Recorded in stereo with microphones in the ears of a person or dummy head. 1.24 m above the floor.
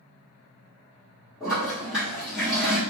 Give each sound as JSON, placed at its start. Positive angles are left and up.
{"t": 1.4, "sound": "a toilet flushing", "side_deg": -5, "distance_m": 1.6}